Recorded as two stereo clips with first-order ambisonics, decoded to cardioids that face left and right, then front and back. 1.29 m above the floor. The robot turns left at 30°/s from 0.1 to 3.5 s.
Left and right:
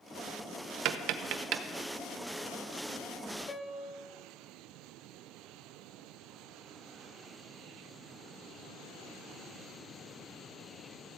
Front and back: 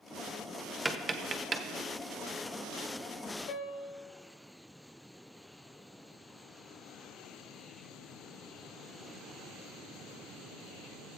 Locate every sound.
0.8 s tapping: 100° right, 0.6 m; by 1.6 s 125° right, 0.6 m
3.5 s a piano: 20° left, 0.9 m